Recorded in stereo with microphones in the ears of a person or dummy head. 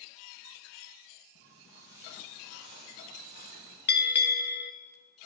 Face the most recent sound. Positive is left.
turn(degrees=50)  # may be behind; listen again after turning